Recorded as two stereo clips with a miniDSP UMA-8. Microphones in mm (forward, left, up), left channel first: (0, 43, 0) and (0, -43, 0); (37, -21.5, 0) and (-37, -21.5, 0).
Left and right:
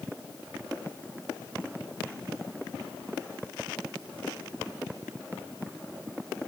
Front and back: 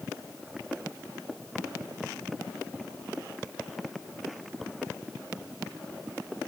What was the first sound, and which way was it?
Only background noise.